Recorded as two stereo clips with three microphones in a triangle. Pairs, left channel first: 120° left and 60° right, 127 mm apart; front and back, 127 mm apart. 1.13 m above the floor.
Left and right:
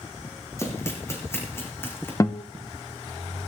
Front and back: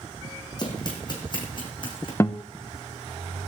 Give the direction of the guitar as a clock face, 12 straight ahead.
10 o'clock.